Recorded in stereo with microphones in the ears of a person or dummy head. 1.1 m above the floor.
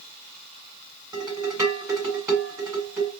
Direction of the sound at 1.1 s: 10° right (ahead or behind).